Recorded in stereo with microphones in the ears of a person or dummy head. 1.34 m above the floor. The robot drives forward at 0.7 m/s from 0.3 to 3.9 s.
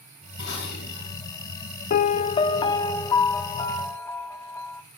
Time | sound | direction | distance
0.4 | dishes clattering | 65° left (ahead or behind) | 6 m
1.9 | a piano | 50° left (ahead or behind) | 0.6 m